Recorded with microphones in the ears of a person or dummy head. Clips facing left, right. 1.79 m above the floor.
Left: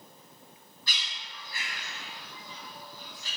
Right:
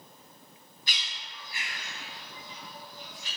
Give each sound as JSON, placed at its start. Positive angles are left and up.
{"t": 0.9, "sound": "a bird", "side_deg": -15, "distance_m": 4.0}